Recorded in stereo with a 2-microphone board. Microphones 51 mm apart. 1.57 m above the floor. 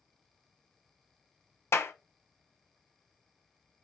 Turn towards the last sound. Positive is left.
turn(degrees=60)  # may be behind; listen again after turning